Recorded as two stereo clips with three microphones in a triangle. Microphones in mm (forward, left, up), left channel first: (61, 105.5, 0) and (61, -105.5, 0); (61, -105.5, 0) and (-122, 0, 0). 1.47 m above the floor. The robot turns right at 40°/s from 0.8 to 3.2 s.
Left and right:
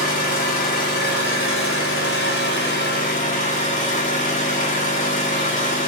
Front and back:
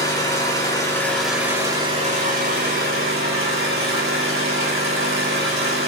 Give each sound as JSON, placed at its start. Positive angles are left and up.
{"t": 0.0, "sound": "an engine running", "azimuth_deg": 40, "distance_m": 3.5}